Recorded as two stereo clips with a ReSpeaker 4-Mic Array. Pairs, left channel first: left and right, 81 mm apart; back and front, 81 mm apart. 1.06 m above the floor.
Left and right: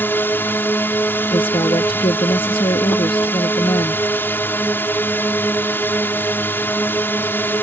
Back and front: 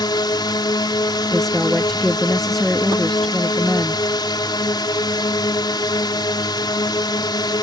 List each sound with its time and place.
0.0 s a drone: 155° left
1.3 s a woman speaking: 95° left